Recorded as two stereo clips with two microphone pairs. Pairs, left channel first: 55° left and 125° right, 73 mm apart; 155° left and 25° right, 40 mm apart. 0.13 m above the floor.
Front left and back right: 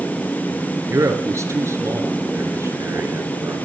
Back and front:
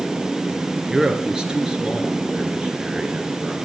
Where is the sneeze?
No sneeze in this recording.